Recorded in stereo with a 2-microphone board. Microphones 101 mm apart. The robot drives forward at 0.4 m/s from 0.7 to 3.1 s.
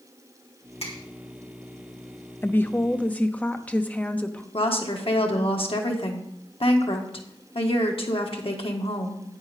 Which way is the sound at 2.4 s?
20° left (ahead or behind).